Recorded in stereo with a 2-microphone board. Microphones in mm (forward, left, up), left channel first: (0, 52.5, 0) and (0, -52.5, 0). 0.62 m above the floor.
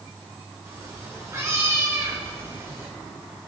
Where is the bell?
No bell in this recording.